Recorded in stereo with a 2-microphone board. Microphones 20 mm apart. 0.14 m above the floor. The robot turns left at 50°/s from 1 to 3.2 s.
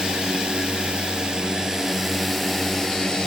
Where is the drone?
110° right; by 3.3 s 140° left.